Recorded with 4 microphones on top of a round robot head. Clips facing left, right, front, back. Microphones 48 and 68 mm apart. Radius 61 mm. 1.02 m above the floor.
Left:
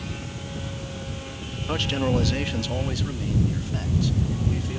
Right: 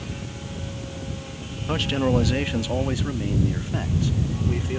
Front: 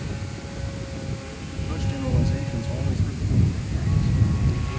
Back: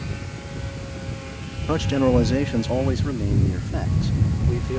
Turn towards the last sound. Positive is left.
turn(degrees=-150)